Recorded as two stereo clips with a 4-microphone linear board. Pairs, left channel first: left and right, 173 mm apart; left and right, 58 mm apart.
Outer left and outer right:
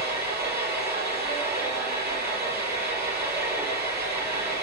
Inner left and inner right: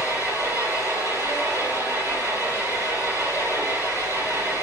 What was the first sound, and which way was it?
An engine running, 60° right (ahead or behind).